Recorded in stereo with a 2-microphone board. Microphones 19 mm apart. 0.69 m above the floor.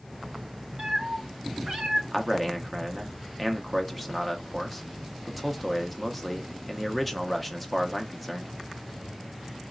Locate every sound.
0.8 s a cat meowing: 75° right (ahead or behind), 1.3 m
2.1 s a man speaking: centre (ahead or behind), 0.6 m